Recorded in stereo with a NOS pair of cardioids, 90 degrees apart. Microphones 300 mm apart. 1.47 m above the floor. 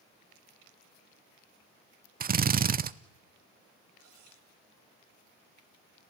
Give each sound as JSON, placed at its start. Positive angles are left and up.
{"t": 2.2, "sound": "a drill", "azimuth_deg": -30, "distance_m": 0.7}
{"t": 4.0, "sound": "cutlery clinking", "azimuth_deg": -65, "distance_m": 4.0}